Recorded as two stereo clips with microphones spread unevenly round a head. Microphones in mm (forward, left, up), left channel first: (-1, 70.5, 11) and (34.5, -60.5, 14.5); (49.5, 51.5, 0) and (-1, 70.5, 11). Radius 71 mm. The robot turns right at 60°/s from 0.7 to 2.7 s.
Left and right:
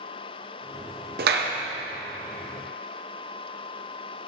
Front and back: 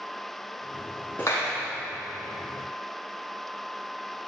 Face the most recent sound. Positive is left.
turn(degrees=-10)